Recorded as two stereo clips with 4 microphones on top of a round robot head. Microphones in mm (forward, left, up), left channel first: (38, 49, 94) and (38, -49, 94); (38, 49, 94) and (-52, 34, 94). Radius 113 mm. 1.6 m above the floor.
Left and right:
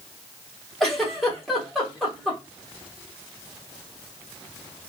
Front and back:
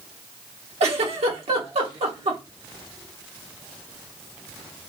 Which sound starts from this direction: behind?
A giggle, at 0.8 s.